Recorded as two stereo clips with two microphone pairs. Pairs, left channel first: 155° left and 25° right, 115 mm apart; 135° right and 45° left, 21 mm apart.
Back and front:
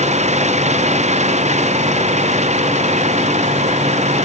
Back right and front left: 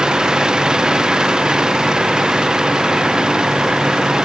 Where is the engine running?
10° right.